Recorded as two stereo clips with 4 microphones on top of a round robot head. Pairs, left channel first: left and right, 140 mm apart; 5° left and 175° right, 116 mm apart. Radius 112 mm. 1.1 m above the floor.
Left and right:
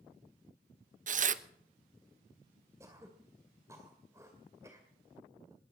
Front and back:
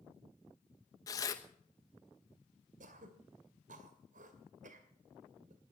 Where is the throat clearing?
165° right, 2 m.